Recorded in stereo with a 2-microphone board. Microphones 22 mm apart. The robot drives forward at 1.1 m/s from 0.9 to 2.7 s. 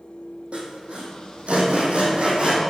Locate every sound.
0.5 s sawing: 70° right (ahead or behind), 2.5 m; by 2.6 s 60° right (ahead or behind), 2.5 m